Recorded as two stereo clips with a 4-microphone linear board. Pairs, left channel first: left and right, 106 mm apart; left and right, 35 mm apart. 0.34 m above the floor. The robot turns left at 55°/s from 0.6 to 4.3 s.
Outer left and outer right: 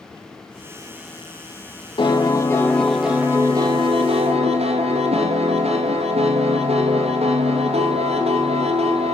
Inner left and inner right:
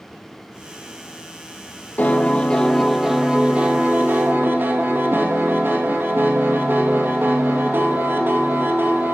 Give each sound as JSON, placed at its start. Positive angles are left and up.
{"t": 2.0, "sound": "a piano", "azimuth_deg": 50, "distance_m": 3.0}